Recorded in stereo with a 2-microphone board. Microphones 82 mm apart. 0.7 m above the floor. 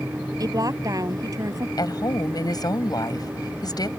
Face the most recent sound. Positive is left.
turn(degrees=50)  # may be behind; listen again after turning